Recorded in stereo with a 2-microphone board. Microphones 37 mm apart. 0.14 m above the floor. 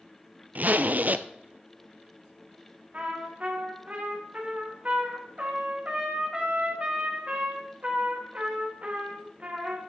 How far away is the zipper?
About 0.6 m.